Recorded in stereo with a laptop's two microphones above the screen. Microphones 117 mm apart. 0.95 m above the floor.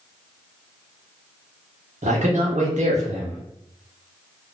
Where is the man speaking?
75° right (ahead or behind), 0.8 m.